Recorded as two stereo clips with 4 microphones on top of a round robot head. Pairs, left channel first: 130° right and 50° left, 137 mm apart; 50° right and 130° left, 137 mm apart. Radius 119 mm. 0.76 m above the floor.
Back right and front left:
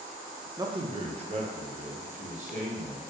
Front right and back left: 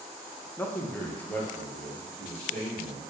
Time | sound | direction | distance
0.6 | a man speaking | 15° left | 0.6 m